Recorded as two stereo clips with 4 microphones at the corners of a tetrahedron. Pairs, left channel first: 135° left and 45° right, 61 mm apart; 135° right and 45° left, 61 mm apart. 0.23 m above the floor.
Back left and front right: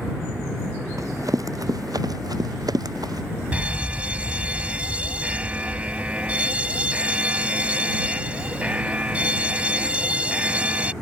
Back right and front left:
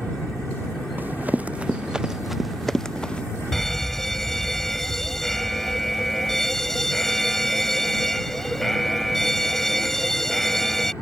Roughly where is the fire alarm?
Ahead right.